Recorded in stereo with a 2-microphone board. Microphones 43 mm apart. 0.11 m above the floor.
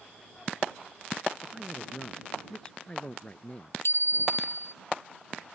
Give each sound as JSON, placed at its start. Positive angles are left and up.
{"t": 1.4, "sound": "a man speaking", "side_deg": -5}
{"t": 3.8, "sound": "a bicycle bell", "side_deg": 70}